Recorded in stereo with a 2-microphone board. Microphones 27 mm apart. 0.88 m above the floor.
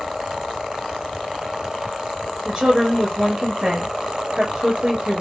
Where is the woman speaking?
25° right (ahead or behind), 1.6 m.